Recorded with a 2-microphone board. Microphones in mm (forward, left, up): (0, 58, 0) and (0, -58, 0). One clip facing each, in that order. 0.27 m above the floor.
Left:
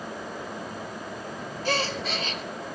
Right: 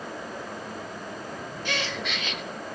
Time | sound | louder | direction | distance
1.6 | a gasp | left 4 dB | 35° left (ahead or behind) | 0.9 m